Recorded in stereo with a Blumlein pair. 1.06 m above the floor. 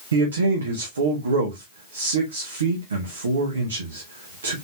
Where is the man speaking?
70° right, 1.1 m.